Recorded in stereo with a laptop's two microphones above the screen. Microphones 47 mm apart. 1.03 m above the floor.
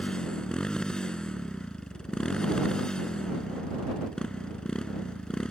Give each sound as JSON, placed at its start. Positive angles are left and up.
{"t": 0.0, "sound": "a motorcycle", "side_deg": 15}